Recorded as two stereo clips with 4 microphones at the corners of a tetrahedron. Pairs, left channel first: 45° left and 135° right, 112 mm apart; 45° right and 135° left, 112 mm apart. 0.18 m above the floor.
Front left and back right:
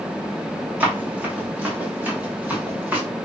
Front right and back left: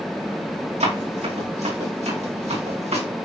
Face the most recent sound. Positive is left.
turn(degrees=150)